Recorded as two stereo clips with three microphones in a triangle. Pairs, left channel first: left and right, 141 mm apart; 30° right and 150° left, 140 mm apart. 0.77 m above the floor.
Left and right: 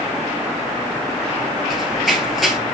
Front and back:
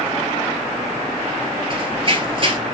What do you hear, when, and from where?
1.7 s running footsteps: straight behind, 1.0 m